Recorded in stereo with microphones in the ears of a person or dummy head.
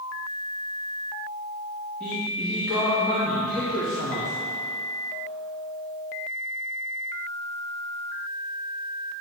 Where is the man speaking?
5° left (ahead or behind), 3 m; by 4.3 s centre (ahead or behind), 1.7 m.